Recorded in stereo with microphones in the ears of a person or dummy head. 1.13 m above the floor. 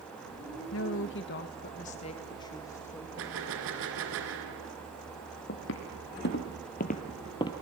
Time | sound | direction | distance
0.7 | a woman speaking | 65° left (ahead or behind) | 1.5 m
3.2 | a gunshot | 70° right (ahead or behind) | 2.5 m
5.5 | footsteps | 60° left (ahead or behind) | 2.5 m